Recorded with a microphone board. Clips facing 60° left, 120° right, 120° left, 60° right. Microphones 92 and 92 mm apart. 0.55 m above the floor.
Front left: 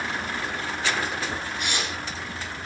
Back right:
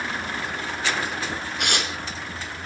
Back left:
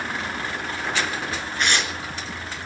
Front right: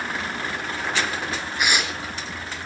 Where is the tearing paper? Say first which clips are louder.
Back right 5 dB, even; 140° right, 3 m.